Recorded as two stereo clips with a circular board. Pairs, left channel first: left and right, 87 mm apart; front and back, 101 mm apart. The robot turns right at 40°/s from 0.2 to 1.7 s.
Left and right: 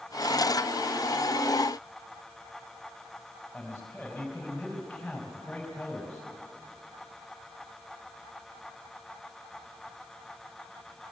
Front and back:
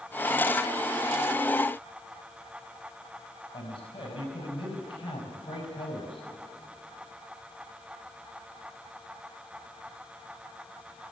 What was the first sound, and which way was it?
A man speaking, 10° left.